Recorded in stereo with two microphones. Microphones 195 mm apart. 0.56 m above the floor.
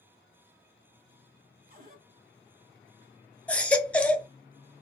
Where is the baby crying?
5° left (ahead or behind), 0.8 m.